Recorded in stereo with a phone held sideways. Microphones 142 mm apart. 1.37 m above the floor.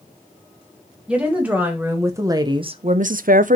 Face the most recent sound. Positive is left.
turn(degrees=-60)  # may be behind; listen again after turning